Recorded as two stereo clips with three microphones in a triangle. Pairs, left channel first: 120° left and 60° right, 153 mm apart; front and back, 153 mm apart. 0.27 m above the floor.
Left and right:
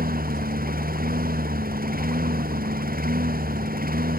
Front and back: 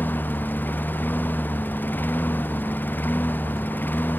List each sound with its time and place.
0.0 s a lawn mower: 80° right